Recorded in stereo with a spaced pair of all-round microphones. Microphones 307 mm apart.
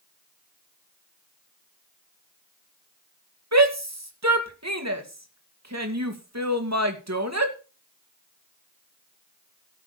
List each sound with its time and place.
3.5 s a shout: 60° right (ahead or behind), 2.5 m